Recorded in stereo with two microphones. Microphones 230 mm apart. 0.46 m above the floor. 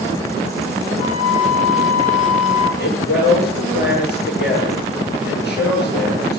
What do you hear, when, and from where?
1.0 s a flute: 30° left (ahead or behind), 6.5 m
2.8 s a man speaking: 45° left (ahead or behind), 8.5 m